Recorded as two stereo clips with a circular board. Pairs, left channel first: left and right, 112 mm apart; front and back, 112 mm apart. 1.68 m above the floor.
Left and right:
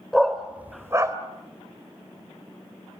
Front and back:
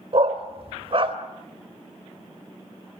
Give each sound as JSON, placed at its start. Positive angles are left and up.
{"t": 0.1, "sound": "a dog barking", "azimuth_deg": 175, "distance_m": 2.5}